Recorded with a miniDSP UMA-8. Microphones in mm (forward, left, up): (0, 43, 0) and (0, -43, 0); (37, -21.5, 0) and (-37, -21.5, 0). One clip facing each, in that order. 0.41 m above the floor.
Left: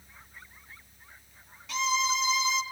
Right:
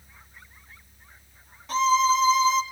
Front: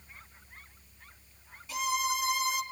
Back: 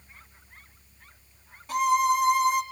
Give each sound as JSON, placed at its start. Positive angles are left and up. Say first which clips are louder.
{"t": 1.7, "sound": "a violin", "louder": "right 9 dB, back 10 dB", "azimuth_deg": -140, "distance_m": 1.5}